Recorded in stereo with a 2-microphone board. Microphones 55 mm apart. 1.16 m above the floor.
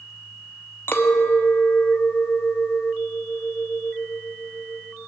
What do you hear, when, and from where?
0.9 s a clink: 45° left (ahead or behind), 0.8 m